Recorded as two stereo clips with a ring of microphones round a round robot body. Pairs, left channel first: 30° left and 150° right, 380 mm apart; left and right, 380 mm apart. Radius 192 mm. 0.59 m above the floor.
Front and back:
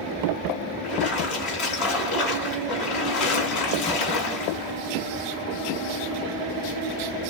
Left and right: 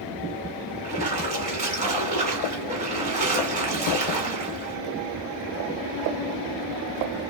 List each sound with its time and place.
0.8 s a splash: 20° right, 2.0 m